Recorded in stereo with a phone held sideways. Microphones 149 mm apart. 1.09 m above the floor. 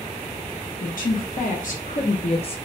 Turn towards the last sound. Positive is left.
turn(degrees=40)  # may be behind; listen again after turning